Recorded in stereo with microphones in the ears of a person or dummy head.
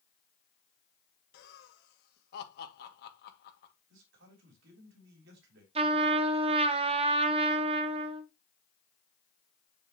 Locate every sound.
1.3 s laughter: 65° left (ahead or behind), 1.9 m
3.9 s a man speaking: 70° right (ahead or behind), 3 m
5.8 s a trumpet: 30° right (ahead or behind), 0.9 m